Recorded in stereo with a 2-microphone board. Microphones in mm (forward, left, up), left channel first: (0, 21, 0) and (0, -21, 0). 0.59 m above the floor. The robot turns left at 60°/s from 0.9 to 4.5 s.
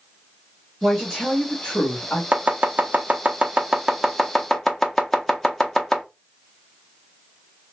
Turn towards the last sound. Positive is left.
turn(degrees=5)  # may be behind; listen again after turning